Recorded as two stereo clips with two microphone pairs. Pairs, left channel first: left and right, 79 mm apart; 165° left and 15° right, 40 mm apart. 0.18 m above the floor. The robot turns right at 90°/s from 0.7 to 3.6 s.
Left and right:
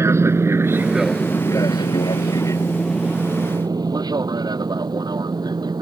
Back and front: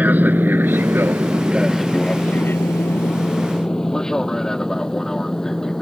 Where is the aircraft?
45° right; by 5.8 s 120° right.